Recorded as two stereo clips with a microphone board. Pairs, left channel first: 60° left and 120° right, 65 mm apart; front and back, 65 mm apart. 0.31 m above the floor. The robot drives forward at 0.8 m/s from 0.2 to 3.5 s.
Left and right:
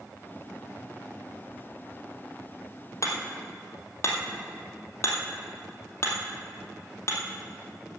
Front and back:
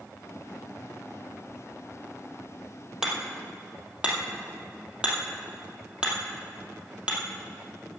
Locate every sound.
3.0 s hammering: 95° left, 2 m; by 8.0 s 105° left, 2 m